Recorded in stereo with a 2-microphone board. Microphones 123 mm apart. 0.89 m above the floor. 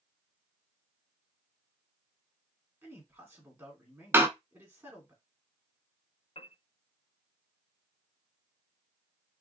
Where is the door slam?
20° right (ahead or behind), 0.8 m.